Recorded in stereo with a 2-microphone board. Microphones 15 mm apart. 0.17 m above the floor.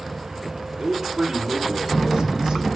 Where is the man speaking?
55° right (ahead or behind), 4.5 m; by 2.7 s 70° right (ahead or behind), 4.5 m.